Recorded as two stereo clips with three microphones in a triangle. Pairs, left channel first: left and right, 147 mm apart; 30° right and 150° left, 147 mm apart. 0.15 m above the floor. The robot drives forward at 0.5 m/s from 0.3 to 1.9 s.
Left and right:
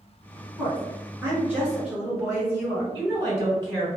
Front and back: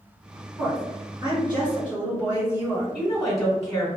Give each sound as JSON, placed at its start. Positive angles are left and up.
{"t": 0.6, "sound": "a woman speaking", "azimuth_deg": -155, "distance_m": 1.7}
{"t": 2.9, "sound": "a woman speaking", "azimuth_deg": -120, "distance_m": 1.7}